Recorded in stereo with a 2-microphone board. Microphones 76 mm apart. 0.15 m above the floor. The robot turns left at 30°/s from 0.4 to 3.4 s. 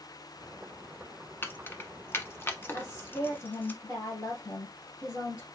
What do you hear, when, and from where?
1.4 s keys jangling: 25° left (ahead or behind), 1.0 m
2.7 s a woman speaking: 55° left (ahead or behind), 2.5 m; by 5.5 s 40° left (ahead or behind), 2.5 m